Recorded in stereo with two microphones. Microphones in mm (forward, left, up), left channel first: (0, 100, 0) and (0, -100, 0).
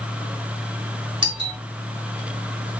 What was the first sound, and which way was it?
A doorbell, 25° right (ahead or behind).